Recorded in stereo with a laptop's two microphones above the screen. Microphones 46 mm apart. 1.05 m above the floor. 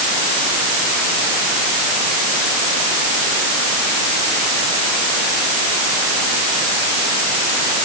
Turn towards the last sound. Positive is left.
No sound to turn to.